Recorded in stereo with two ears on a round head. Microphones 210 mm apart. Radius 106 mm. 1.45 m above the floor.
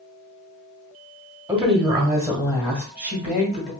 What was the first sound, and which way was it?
A woman speaking, 5° right (ahead or behind).